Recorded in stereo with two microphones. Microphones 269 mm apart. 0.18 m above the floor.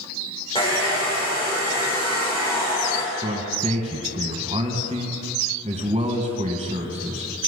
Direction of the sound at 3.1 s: 25° right (ahead or behind).